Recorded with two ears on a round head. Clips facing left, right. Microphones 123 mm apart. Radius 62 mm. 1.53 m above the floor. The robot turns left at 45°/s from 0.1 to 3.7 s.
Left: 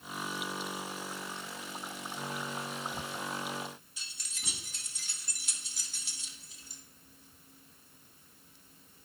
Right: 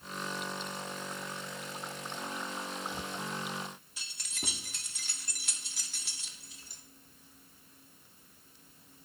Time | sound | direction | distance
4.0 | keys jangling | 50° right (ahead or behind) | 2.5 m